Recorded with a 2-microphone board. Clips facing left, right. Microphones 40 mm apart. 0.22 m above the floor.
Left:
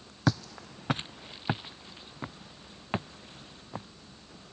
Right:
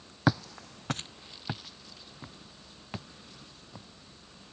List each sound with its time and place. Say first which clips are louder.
0.3 s footsteps: right 2 dB; 15° right (ahead or behind); by 3.9 s 35° left (ahead or behind)